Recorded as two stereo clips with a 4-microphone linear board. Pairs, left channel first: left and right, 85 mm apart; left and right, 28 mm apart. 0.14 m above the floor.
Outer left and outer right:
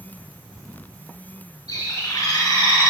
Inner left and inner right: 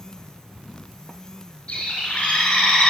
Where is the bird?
50° left (ahead or behind), 3 m.